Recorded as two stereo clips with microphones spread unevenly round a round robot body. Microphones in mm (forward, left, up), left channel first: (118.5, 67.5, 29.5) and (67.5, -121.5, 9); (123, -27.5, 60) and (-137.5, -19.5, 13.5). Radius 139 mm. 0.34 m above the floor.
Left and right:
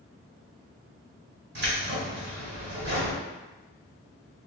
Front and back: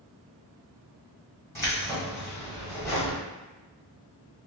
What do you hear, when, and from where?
1.6 s keys jangling: 85° right, 1.8 m